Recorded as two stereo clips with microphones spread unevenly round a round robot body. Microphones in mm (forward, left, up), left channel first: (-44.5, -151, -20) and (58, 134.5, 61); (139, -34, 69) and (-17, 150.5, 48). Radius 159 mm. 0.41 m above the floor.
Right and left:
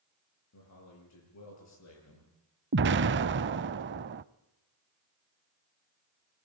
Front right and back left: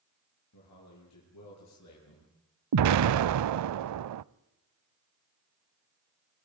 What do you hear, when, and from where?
0.5 s a man speaking: 75° right, 9 m
2.7 s an explosion: 120° left, 0.6 m